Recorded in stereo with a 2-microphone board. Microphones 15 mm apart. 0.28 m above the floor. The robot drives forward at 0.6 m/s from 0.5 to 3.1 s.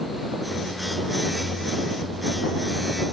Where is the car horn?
No car horn in this recording.